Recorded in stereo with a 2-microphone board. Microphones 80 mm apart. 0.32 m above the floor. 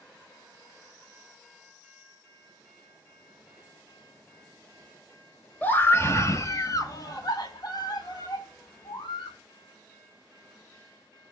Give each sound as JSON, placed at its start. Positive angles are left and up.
{"t": 5.6, "sound": "a scream", "side_deg": 25, "distance_m": 1.2}